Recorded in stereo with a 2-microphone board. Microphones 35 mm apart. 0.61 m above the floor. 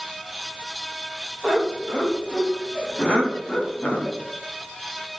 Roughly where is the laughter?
Centre.